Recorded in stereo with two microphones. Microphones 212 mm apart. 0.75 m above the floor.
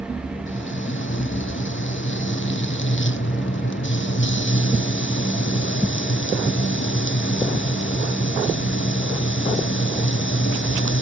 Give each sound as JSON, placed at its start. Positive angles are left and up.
{"t": 0.5, "sound": "frying", "side_deg": 75}